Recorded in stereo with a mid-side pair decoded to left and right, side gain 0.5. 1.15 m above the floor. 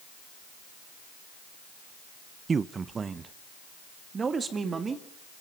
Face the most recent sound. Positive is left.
turn(degrees=-35)